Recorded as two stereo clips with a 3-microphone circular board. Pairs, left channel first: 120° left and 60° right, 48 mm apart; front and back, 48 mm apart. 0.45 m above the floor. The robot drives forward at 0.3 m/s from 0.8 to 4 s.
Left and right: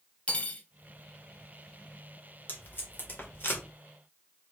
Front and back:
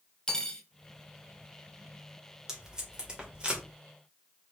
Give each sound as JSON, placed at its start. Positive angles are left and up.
{"t": 0.3, "sound": "cutlery clinking", "azimuth_deg": 65, "distance_m": 0.8}
{"t": 2.5, "sound": "tape being pulled", "azimuth_deg": 105, "distance_m": 1.8}